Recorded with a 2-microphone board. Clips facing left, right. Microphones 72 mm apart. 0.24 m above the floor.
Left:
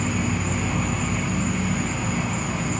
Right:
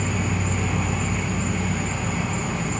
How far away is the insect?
About 1.3 m.